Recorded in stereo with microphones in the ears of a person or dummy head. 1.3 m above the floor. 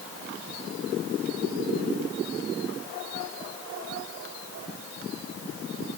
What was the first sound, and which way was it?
Only background noise.